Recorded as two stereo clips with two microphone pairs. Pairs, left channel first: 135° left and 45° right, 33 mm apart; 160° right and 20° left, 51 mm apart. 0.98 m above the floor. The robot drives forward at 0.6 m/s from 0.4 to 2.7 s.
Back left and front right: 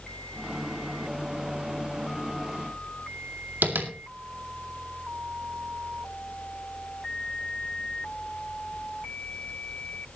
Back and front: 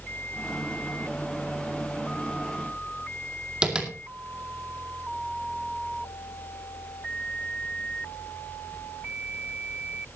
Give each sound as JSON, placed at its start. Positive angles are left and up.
{"t": 3.6, "sound": "tapping", "azimuth_deg": -50, "distance_m": 2.0}